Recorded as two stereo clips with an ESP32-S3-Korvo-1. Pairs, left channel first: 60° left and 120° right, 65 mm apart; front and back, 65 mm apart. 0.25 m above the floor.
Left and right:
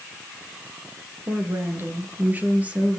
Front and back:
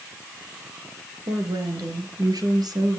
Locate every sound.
1.3 s a woman speaking: 170° right, 3.5 m; by 3.0 s 170° left, 4 m